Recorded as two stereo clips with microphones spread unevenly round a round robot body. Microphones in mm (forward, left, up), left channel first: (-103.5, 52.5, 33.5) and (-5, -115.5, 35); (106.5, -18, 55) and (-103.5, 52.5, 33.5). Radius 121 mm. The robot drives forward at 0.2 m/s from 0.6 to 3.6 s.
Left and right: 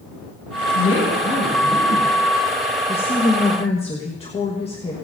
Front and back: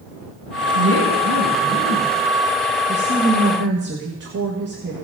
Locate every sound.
0.8 s a woman speaking: 160° left, 7 m
2.9 s a woman speaking: 175° left, 1.4 m